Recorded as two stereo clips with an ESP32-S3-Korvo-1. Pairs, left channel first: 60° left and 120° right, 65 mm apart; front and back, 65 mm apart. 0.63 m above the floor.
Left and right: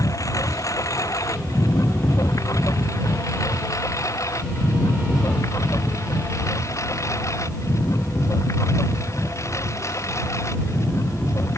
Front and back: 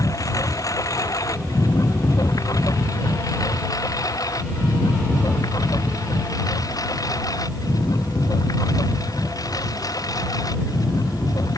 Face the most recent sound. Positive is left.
turn(degrees=20)